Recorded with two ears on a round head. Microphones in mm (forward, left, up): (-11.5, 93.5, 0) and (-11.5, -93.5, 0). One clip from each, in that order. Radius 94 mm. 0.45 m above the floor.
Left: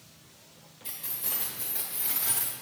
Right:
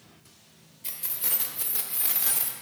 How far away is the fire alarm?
No fire alarm in this recording.